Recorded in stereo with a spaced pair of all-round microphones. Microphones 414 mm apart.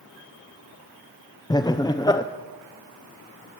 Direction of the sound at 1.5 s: 10° left (ahead or behind).